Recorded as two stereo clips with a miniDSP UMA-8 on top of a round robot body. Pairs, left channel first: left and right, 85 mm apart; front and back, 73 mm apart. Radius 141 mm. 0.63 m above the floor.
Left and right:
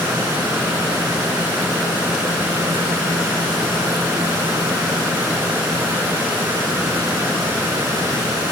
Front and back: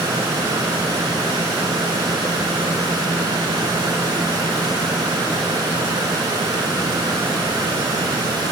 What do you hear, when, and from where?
Only background noise.